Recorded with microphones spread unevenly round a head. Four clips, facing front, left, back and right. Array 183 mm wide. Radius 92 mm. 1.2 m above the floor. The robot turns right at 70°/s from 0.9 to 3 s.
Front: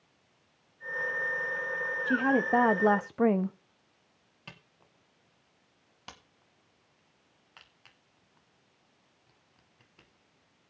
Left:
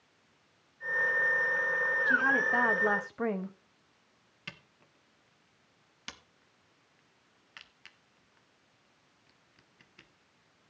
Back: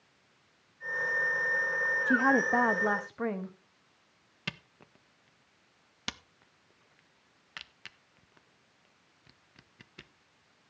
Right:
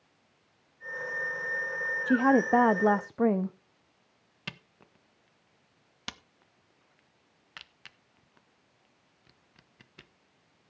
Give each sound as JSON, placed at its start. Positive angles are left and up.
{"t": 2.1, "sound": "a woman speaking", "azimuth_deg": -100, "distance_m": 0.8}
{"t": 4.5, "sound": "a camera shutter", "azimuth_deg": -155, "distance_m": 1.4}